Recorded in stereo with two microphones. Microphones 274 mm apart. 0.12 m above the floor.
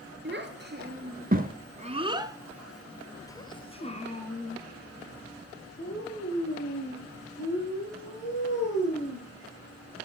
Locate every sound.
0.2 s a child speaking: 40° right (ahead or behind), 1.5 m; by 9.2 s 40° left (ahead or behind), 4 m